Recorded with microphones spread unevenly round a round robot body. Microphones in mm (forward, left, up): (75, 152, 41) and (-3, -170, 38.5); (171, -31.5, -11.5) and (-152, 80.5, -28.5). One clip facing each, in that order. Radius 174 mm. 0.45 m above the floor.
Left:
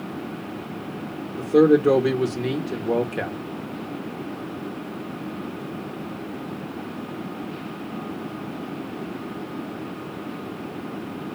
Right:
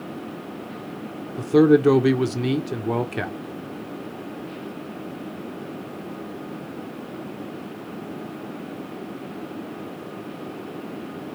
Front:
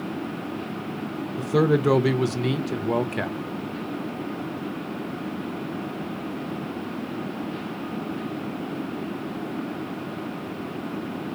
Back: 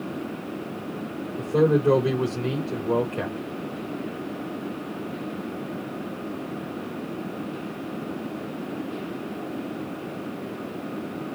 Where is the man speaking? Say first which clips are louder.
Right 1 dB, back 1 dB; 45° right, 1.0 m.